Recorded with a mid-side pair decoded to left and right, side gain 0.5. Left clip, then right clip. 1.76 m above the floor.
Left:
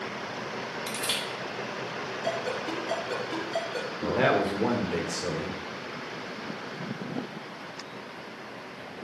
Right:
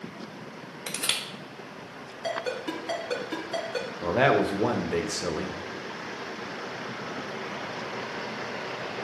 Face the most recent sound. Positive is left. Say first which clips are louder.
# right 2 dB
turn(degrees=-30)